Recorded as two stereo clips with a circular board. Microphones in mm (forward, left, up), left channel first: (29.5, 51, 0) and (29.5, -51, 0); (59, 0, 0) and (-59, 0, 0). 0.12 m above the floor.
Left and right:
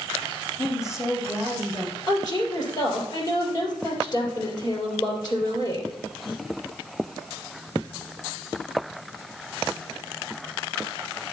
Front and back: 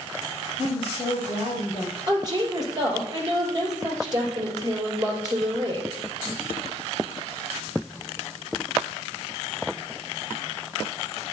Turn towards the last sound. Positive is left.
turn(degrees=130)